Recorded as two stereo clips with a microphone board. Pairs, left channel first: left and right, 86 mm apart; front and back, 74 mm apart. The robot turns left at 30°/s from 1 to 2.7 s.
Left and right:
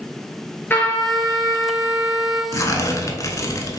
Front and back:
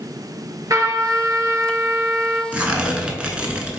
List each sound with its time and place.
0.7 s a trumpet: 155° left, 0.9 m; by 2.4 s 110° left, 0.9 m
2.5 s tearing paper: 120° left, 0.6 m; by 3.8 s 115° left, 0.6 m